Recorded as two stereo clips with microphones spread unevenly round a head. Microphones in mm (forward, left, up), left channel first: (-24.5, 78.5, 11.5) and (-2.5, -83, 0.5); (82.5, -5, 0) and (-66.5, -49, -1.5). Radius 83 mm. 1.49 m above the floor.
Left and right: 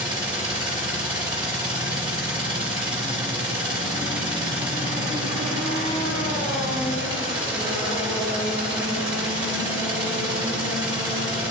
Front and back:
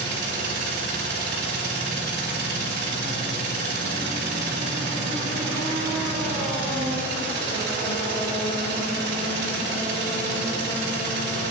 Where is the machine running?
145° right, 3 m.